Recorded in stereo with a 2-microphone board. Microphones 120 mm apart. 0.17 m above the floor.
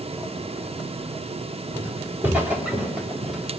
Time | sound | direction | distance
1.8 | footsteps | 20° right (ahead or behind) | 4 m